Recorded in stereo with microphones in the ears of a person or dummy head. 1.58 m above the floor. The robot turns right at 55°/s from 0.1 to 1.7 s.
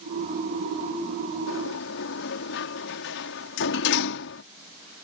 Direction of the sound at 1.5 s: 70° left (ahead or behind).